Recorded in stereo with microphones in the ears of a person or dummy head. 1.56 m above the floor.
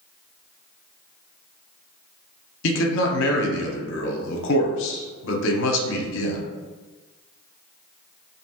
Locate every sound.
2.6 s a man speaking: 70° left (ahead or behind), 0.7 m